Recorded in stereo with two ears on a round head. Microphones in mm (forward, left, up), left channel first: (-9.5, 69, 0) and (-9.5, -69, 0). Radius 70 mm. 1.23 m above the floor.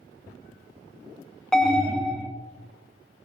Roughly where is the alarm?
Centre.